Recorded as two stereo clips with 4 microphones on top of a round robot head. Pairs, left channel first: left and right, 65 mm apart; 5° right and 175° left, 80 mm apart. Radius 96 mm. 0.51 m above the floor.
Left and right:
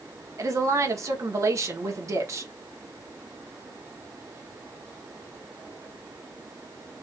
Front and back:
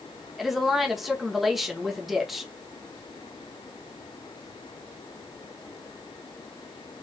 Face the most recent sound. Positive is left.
turn(degrees=-95)